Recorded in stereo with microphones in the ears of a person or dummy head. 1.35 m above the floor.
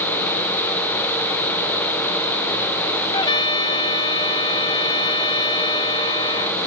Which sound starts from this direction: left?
A trumpet, at 3.1 s.